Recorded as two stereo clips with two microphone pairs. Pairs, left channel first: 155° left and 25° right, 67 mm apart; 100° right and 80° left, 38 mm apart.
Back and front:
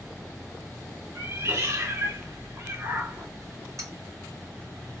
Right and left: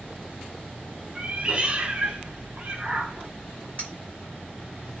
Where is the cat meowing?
25° left, 0.8 m.